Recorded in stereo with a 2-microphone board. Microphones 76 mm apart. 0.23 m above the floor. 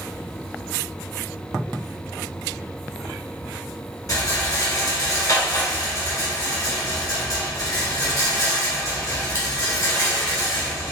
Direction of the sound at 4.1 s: 55° left (ahead or behind).